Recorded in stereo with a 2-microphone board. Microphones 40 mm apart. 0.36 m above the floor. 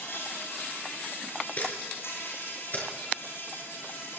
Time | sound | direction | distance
0.0 | an insect | 85° left | 8 m
1.6 | a camera shutter | 45° left (ahead or behind) | 4 m